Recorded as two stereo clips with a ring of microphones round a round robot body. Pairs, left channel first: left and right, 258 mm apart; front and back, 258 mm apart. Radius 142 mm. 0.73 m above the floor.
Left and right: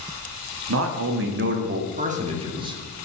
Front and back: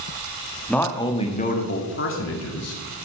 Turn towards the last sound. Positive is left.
turn(degrees=-15)